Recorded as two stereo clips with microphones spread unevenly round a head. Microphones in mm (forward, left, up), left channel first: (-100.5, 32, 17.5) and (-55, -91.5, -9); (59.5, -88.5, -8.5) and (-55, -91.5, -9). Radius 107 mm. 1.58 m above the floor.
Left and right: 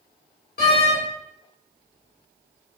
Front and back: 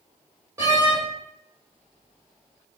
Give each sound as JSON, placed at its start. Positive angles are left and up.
{"t": 0.6, "sound": "a door slam", "azimuth_deg": 105, "distance_m": 4.5}